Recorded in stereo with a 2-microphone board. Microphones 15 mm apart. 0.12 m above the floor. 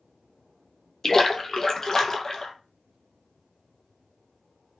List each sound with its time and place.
1.0 s a splash: 30° left (ahead or behind), 0.5 m